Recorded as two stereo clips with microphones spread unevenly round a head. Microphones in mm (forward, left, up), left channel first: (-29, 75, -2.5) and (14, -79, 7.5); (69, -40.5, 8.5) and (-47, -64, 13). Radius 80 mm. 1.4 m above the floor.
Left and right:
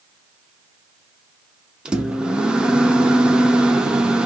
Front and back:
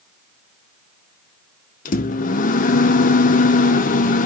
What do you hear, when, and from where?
1.9 s a microwave: 10° left, 0.7 m